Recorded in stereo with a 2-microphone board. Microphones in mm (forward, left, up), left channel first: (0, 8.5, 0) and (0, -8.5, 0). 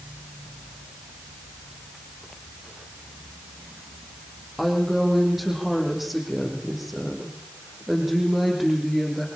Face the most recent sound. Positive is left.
turn(degrees=-5)  # may be behind; listen again after turning